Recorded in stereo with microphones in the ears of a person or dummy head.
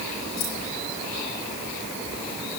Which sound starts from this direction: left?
Keys jangling, at 0.4 s.